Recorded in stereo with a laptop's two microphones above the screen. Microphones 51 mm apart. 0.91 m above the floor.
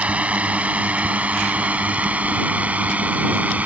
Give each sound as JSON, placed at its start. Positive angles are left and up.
{"t": 0.0, "sound": "a drone", "side_deg": -30}